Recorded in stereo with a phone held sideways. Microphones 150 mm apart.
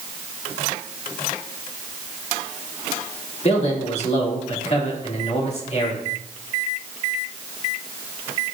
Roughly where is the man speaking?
Left.